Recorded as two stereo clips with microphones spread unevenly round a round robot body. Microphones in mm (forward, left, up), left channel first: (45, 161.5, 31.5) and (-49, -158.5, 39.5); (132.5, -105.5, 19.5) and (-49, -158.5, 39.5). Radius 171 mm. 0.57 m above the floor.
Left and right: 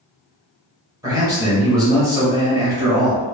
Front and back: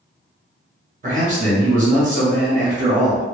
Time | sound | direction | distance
1.0 | a man speaking | straight behind | 1.1 m